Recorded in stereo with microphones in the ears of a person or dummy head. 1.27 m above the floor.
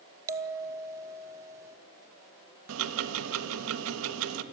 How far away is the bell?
About 0.8 m.